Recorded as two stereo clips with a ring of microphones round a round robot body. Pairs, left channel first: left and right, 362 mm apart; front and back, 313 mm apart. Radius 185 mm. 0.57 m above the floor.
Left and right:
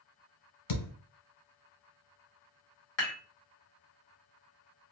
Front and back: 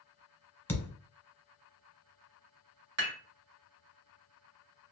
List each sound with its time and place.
0.7 s a thud: 85° left, 1.3 m
3.0 s dishes clattering: 145° left, 1.9 m